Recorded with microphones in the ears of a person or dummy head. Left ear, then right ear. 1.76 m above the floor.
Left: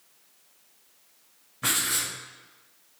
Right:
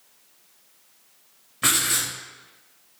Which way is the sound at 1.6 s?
30° right (ahead or behind).